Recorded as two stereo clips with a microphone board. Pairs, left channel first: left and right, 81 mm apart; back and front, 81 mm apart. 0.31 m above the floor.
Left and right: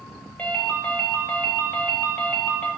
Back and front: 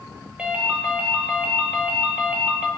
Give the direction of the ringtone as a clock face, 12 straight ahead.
10 o'clock.